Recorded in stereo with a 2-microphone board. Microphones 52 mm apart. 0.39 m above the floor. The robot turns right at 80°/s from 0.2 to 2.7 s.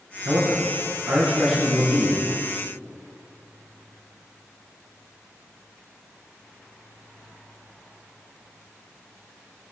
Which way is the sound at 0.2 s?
100° right.